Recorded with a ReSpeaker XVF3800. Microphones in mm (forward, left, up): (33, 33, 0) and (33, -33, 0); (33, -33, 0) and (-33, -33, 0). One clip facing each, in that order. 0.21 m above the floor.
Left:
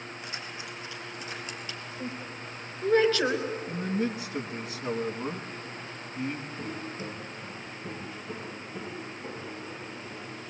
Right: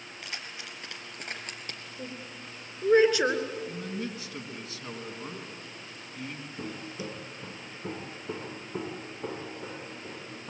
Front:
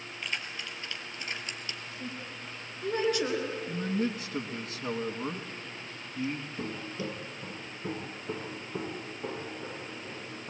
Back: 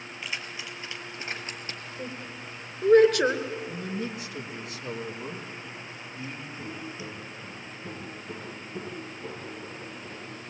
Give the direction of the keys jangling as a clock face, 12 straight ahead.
3 o'clock.